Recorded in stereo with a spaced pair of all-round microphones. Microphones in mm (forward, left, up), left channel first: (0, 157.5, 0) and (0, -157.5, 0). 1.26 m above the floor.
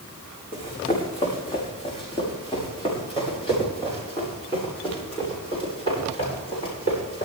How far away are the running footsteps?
About 5.5 m.